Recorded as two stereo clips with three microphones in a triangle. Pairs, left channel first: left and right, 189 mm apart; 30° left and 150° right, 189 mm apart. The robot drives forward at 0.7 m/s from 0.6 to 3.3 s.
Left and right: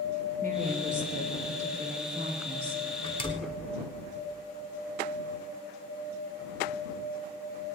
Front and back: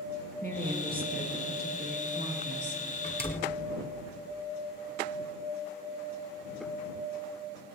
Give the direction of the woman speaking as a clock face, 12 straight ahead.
4 o'clock.